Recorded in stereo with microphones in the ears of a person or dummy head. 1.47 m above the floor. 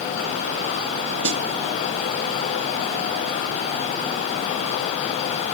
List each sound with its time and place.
1.2 s a snare drum: 65° right (ahead or behind), 1.0 m